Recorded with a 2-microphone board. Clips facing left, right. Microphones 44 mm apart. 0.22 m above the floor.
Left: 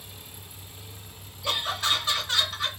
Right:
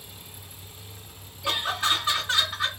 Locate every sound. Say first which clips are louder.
1.4 s laughter: right 2 dB; 15° right (ahead or behind), 3 m